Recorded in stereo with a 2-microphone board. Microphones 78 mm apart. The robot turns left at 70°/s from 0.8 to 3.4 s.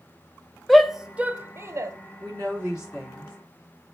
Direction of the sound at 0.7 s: Centre (ahead or behind).